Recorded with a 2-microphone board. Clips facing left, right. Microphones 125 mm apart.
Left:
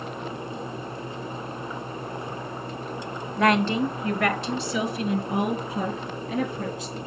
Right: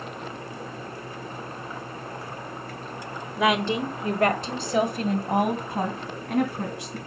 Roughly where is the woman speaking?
Centre.